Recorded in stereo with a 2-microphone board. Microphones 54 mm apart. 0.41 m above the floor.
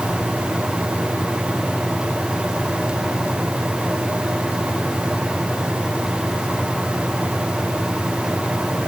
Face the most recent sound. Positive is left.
No sound to turn to.